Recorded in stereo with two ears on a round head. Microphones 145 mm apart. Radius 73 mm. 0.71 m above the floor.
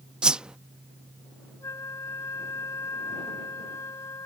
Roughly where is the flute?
Centre.